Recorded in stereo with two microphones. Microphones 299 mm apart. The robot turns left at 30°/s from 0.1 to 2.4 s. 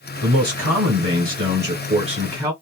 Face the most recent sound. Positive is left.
turn(degrees=-170)